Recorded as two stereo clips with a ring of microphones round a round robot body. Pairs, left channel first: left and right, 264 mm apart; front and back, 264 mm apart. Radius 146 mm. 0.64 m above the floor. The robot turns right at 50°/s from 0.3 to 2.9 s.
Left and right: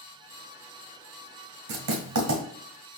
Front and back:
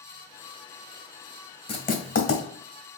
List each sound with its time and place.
1.7 s writing: 70° right, 1.8 m; by 2.4 s 35° right, 1.8 m